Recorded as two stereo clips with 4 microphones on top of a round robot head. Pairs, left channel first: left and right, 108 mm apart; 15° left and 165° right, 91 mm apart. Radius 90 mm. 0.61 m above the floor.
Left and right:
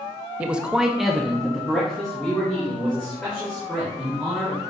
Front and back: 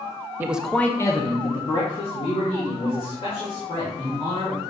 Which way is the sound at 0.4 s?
150° right.